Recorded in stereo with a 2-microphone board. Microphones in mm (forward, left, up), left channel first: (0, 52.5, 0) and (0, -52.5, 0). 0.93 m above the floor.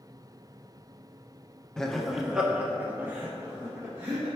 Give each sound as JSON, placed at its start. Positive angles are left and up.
{"t": 1.8, "sound": "laughter", "side_deg": 5, "distance_m": 1.0}